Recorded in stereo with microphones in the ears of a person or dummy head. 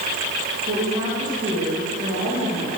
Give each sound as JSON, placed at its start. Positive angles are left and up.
{"t": 0.7, "sound": "a woman speaking", "side_deg": -35, "distance_m": 3.5}